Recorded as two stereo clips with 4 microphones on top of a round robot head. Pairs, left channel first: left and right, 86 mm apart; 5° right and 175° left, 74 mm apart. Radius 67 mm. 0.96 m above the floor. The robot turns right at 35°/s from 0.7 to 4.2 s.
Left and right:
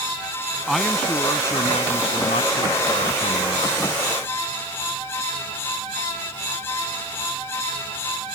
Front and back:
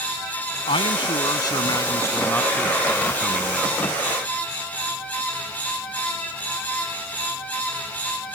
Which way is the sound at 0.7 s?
Straight ahead.